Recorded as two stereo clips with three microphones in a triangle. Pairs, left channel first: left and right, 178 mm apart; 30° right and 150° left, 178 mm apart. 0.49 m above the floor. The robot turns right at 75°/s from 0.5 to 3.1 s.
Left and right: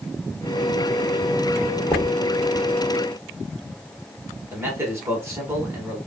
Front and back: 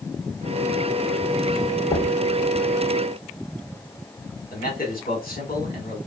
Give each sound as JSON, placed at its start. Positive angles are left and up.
{"t": 1.9, "sound": "knocking", "azimuth_deg": 10, "distance_m": 0.8}
{"t": 4.5, "sound": "a man speaking", "azimuth_deg": -20, "distance_m": 1.2}